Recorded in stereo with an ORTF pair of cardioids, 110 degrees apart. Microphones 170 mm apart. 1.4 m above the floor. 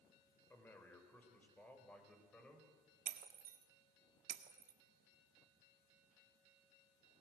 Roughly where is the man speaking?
Ahead.